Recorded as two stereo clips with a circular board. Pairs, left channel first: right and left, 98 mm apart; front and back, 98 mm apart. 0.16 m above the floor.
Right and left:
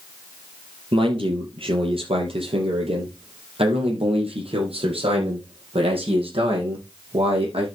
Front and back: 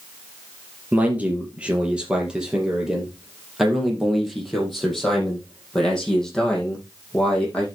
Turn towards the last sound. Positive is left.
turn(degrees=80)